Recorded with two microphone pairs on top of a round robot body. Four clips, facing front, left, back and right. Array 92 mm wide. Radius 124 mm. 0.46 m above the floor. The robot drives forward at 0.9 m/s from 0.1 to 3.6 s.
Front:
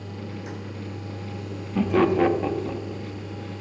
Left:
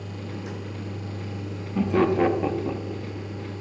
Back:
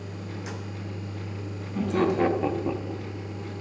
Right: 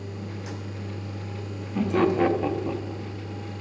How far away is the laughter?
About 1.2 m.